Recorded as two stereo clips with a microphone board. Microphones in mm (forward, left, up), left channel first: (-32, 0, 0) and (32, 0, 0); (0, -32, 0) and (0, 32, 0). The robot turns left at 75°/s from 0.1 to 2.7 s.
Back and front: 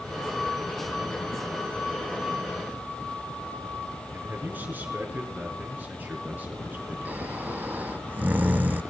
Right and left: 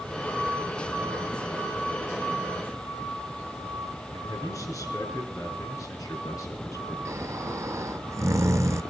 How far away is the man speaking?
About 5 m.